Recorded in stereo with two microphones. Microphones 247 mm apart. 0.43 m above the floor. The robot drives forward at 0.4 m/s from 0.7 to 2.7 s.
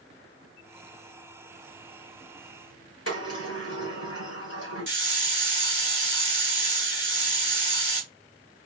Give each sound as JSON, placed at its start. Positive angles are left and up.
{"t": 3.1, "sound": "a sliding door", "side_deg": 65, "distance_m": 2.5}
{"t": 4.9, "sound": "a hiss", "side_deg": 45, "distance_m": 1.8}